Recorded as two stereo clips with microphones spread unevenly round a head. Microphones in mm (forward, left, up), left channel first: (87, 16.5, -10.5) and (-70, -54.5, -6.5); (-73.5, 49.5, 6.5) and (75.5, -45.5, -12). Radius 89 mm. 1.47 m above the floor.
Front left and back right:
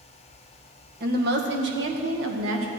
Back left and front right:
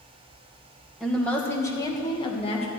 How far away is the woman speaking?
About 1.6 m.